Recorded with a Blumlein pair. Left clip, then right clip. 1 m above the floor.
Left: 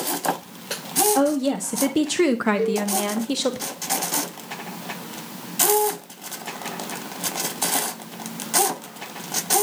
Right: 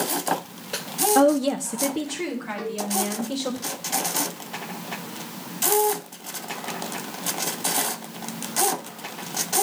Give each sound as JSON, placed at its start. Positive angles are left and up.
{"t": 1.1, "sound": "a woman speaking", "azimuth_deg": -15, "distance_m": 0.6}
{"t": 2.6, "sound": "a cowbell", "azimuth_deg": -65, "distance_m": 2.0}